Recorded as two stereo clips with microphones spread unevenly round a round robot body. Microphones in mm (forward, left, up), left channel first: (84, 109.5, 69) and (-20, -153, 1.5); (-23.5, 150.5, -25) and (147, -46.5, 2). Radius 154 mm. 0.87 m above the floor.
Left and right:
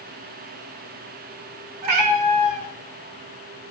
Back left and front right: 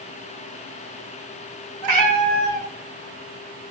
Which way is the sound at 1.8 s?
85° right.